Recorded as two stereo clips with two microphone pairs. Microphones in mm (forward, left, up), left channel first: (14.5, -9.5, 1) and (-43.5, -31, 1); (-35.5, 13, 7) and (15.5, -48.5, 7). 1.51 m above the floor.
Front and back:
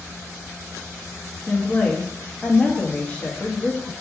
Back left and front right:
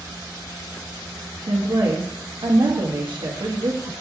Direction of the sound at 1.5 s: 45° right.